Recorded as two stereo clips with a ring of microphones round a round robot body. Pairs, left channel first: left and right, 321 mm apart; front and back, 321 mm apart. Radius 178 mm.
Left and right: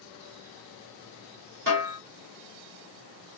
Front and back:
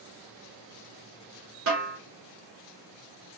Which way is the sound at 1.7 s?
140° right.